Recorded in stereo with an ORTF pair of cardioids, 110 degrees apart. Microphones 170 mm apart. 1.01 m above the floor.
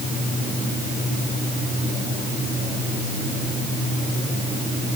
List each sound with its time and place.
Only background noise.